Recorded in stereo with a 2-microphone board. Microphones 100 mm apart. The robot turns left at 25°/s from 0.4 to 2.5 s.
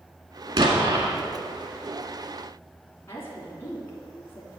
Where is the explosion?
60° right (ahead or behind), 1.4 m; by 1.1 s 55° right (ahead or behind), 1.4 m.